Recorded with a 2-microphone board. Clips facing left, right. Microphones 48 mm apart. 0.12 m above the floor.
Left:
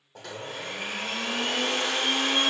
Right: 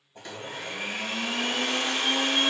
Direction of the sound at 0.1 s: 65° left (ahead or behind).